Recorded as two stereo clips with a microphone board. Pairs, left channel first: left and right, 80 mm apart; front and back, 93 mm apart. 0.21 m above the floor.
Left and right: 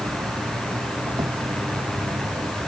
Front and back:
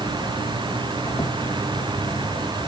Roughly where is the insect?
Ahead right.